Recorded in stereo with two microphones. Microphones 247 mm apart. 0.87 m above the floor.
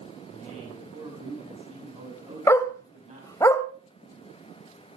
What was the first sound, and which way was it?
A man speaking, 25° right (ahead or behind).